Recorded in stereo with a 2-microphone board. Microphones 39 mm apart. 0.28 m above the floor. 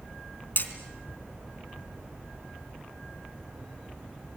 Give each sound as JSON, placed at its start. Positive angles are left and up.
{"t": 0.6, "sound": "hammering", "side_deg": 50, "distance_m": 3.0}